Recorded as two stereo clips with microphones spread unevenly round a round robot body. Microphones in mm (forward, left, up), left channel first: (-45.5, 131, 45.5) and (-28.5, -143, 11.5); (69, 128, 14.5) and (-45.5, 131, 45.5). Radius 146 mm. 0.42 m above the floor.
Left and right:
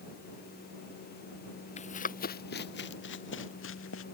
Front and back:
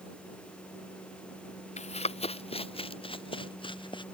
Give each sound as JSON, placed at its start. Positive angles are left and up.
{"t": 1.8, "sound": "running footsteps", "azimuth_deg": 25}